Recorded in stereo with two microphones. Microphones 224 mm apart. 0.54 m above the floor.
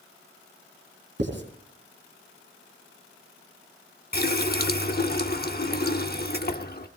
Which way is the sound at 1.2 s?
50° right (ahead or behind).